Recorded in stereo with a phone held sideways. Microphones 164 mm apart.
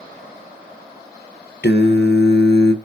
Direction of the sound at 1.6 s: 75° left (ahead or behind).